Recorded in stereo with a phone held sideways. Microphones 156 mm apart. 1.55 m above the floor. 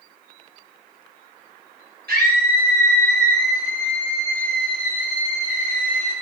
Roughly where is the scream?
Right.